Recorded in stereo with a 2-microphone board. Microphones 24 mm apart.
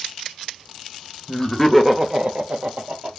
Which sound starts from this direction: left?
Laughter, at 1.3 s.